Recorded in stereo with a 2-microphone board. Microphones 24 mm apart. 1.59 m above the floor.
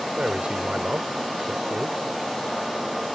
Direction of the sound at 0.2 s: 65° right (ahead or behind).